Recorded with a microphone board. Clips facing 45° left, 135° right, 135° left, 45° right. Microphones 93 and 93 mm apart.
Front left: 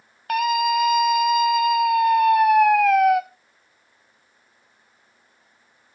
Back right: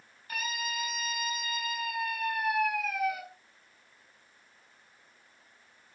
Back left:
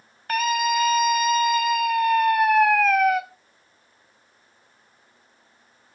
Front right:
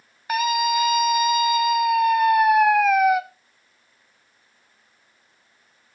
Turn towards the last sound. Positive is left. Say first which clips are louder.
# front left 17 dB, front right 1 dB
turn(degrees=40)